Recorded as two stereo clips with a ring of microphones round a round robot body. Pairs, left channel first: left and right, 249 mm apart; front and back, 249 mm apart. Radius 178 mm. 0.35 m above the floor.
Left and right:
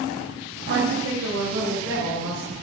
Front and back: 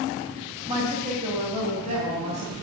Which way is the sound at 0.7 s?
110° right.